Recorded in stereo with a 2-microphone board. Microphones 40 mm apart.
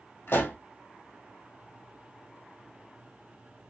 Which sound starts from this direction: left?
A pop, at 0.3 s.